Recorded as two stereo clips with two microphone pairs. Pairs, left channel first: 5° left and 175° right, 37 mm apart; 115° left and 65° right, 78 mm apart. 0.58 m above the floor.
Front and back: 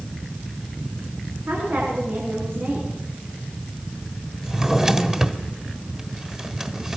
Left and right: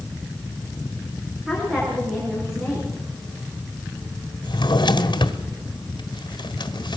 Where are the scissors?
No scissors in this recording.